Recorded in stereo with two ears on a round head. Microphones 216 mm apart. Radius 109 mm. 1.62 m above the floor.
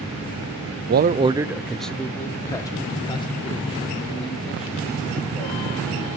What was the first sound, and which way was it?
A man speaking, 45° right (ahead or behind).